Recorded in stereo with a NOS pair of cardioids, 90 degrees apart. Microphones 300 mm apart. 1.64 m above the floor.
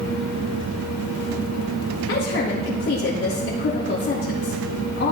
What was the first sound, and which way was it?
A woman speaking, 50° left.